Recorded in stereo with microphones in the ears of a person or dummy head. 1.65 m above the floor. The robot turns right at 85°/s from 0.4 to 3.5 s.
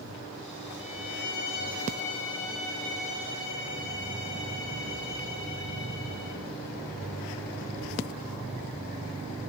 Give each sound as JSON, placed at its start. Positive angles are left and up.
{"t": 0.8, "sound": "a violin", "azimuth_deg": 30, "distance_m": 6.5}